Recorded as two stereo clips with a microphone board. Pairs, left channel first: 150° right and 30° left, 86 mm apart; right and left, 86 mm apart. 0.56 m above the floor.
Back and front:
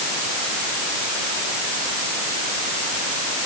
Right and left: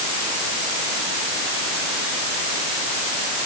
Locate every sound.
Only background noise.